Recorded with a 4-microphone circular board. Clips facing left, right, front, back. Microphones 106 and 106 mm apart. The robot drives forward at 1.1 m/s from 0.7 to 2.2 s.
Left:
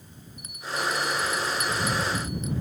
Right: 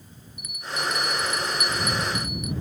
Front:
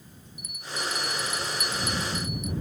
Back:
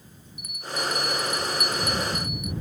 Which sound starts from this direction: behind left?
A bell, at 0.4 s.